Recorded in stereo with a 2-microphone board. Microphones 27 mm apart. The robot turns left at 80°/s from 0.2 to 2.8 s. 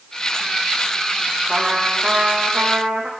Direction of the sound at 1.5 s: 5° left.